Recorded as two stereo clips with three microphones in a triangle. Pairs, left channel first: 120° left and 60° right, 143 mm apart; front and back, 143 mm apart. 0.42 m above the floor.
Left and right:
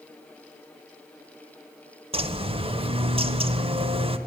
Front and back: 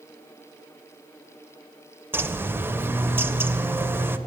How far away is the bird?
About 0.7 m.